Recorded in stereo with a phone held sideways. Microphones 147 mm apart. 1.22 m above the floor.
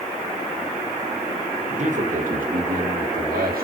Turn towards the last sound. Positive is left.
turn(degrees=-85)